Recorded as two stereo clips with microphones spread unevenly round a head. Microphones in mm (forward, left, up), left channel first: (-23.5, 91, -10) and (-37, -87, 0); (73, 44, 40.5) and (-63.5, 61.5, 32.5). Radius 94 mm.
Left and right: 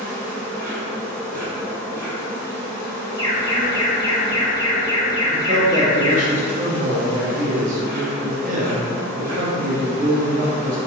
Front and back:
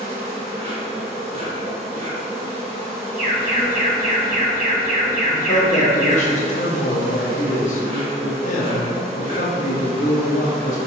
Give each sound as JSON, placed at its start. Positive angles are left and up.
{"t": 0.0, "sound": "an insect", "azimuth_deg": 165, "distance_m": 1.6}
{"t": 3.2, "sound": "an alarm", "azimuth_deg": 150, "distance_m": 0.9}
{"t": 5.3, "sound": "a man speaking", "azimuth_deg": -45, "distance_m": 0.7}